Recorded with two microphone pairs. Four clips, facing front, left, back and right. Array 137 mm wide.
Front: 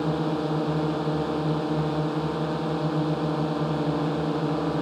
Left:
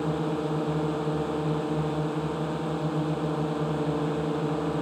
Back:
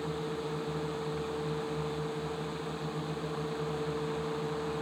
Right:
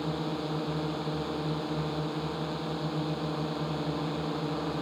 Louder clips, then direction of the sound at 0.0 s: Left 5 dB, front 10 dB; 15° left.